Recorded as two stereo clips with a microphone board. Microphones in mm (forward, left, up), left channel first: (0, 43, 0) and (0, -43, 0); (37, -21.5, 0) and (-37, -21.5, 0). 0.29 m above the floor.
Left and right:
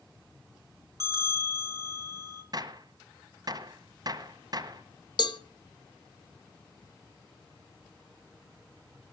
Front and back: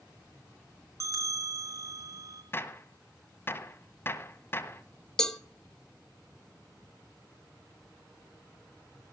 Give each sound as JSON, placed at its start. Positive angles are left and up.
{"t": 1.0, "sound": "a bell", "azimuth_deg": -135, "distance_m": 4.0}
{"t": 2.5, "sound": "a gunshot", "azimuth_deg": -55, "distance_m": 1.4}
{"t": 5.2, "sound": "a cowbell", "azimuth_deg": 80, "distance_m": 0.8}